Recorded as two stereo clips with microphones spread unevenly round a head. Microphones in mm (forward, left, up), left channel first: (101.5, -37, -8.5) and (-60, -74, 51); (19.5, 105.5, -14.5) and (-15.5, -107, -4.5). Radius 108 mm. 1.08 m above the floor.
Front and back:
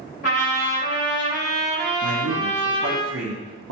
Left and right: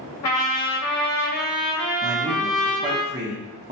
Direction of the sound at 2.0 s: 170° right.